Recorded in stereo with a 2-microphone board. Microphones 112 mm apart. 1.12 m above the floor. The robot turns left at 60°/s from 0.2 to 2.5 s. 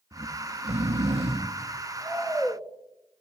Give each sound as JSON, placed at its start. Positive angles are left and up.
{"t": 0.1, "sound": "snoring", "azimuth_deg": -50, "distance_m": 1.9}